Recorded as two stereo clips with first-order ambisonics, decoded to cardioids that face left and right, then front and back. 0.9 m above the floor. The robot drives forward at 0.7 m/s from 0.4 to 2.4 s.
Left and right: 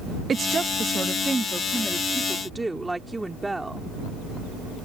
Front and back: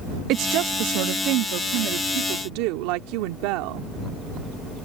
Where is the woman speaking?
155° right; by 3.9 s 175° right.